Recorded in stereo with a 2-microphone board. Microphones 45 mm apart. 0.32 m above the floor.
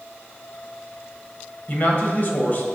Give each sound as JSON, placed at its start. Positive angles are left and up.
{"t": 1.7, "sound": "a man speaking", "side_deg": 40, "distance_m": 1.4}